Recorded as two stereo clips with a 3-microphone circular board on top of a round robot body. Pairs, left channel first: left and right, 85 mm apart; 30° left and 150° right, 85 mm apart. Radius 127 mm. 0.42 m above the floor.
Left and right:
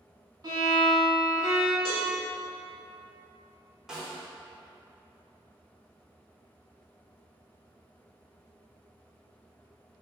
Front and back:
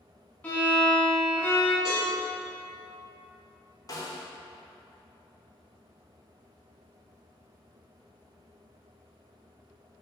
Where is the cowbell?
130° left, 1.8 m.